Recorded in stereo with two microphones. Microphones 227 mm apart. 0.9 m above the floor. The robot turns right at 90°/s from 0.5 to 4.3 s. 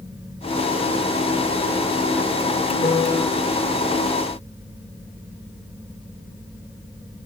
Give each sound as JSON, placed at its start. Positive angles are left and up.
{"t": 2.8, "sound": "a piano", "azimuth_deg": 140, "distance_m": 1.0}